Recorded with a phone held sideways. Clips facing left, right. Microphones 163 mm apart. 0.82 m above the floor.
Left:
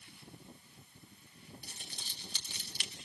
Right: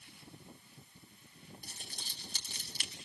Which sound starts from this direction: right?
Crumpling, at 1.6 s.